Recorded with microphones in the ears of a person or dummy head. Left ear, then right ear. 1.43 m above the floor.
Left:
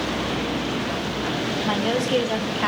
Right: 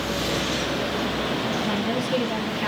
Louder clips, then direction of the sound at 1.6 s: Left 3 dB; 40° left (ahead or behind).